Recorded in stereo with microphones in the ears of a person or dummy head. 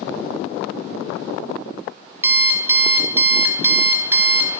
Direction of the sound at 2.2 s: 15° right (ahead or behind).